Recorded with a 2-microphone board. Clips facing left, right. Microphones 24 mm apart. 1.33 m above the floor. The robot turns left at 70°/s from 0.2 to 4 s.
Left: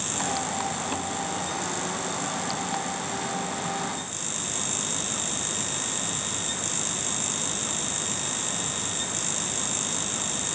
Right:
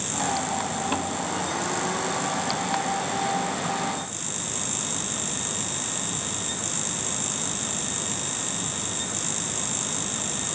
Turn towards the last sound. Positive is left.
No sound to turn to.